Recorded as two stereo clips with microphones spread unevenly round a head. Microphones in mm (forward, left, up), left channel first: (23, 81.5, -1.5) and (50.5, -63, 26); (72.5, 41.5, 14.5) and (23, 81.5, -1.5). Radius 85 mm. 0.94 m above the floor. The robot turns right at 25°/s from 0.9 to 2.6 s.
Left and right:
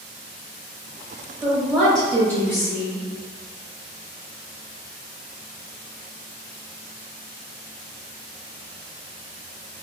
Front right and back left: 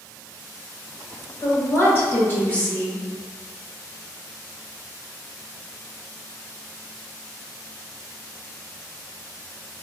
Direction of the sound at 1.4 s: 5° left.